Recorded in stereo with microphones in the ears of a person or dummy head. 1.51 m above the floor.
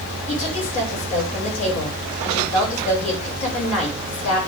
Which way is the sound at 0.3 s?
35° left (ahead or behind).